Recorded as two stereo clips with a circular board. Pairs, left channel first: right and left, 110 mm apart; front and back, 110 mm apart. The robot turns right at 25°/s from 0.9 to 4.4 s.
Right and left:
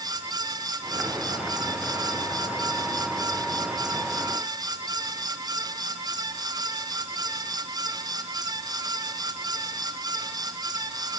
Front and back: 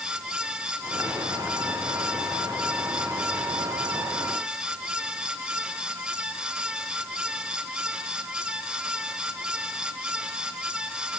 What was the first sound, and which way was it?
Only background noise.